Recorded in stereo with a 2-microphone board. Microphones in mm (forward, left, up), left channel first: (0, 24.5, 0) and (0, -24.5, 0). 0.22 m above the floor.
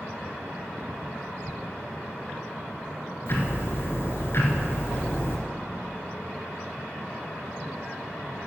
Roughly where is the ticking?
Left.